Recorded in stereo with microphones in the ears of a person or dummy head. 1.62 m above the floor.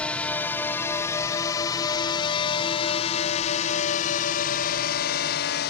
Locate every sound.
0.0 s a drone: 10° left (ahead or behind); by 5.7 s 60° left (ahead or behind)